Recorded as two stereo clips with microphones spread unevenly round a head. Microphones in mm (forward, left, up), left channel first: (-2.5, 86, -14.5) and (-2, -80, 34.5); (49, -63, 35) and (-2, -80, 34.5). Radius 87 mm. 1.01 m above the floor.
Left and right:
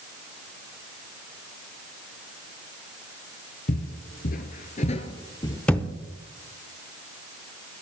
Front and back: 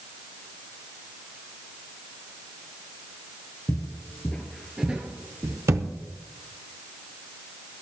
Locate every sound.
3.7 s footsteps: 50° left, 1.3 m; by 5.6 s 175° left, 1.3 m
5.7 s a thud: 170° right, 0.8 m